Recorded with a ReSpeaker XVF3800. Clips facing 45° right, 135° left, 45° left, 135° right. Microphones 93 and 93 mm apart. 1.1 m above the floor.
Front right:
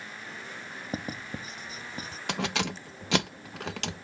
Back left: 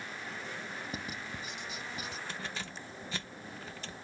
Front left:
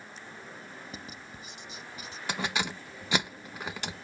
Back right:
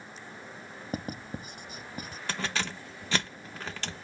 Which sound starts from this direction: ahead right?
Keys jangling, at 2.3 s.